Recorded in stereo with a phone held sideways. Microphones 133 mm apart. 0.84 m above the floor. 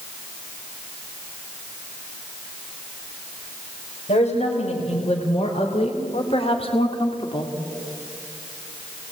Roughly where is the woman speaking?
Left.